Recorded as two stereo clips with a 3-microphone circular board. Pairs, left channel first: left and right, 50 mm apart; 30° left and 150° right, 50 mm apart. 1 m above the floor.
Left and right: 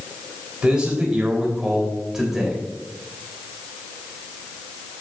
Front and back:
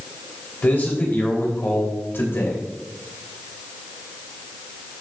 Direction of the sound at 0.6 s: 20° right.